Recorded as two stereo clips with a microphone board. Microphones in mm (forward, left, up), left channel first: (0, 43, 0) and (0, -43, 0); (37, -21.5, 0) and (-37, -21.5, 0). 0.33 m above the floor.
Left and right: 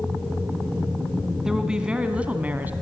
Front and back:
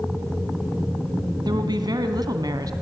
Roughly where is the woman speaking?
Behind.